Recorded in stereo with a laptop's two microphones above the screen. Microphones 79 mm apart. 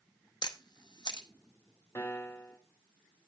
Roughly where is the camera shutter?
Left.